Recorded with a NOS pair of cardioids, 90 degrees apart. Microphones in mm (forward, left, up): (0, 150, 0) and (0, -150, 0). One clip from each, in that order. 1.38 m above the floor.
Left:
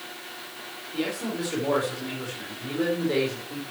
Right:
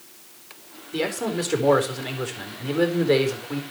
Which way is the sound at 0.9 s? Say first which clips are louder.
Right 5 dB; 60° right.